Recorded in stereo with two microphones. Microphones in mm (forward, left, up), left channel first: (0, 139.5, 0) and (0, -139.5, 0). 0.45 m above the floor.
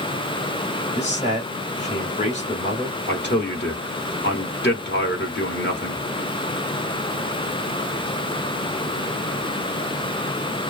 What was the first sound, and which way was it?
A man speaking, 25° left (ahead or behind).